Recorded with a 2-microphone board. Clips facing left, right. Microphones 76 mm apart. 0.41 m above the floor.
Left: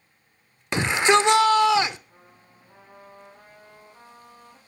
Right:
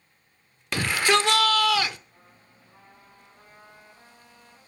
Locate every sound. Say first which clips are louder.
0.7 s a shout: left 3 dB; 20° left (ahead or behind), 0.8 m
2.1 s a trumpet: left 3 dB; 80° left, 10 m